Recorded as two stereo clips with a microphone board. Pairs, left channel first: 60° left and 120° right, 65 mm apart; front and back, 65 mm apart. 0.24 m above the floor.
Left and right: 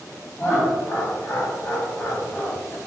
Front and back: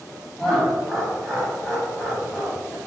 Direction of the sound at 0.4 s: 75° left.